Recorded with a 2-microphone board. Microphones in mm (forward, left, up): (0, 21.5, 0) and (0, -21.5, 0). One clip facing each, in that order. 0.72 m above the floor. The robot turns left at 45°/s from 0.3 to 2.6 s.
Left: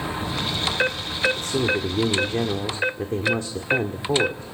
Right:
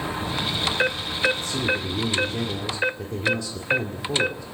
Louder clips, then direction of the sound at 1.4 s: Left 2 dB; 95° left.